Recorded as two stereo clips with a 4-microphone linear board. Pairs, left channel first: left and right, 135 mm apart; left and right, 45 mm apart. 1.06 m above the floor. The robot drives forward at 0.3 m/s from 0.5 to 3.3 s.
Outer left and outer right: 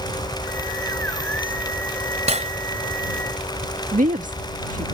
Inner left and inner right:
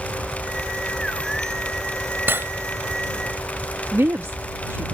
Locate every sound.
2.3 s cutlery clinking: 55° right (ahead or behind)
3.9 s a woman speaking: 75° right (ahead or behind)